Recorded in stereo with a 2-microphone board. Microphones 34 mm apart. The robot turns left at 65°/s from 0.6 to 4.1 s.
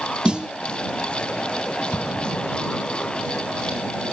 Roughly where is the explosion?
Left.